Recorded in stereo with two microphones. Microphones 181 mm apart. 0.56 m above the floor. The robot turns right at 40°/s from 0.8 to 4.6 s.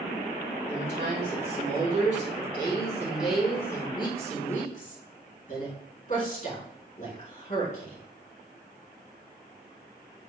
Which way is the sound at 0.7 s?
100° right.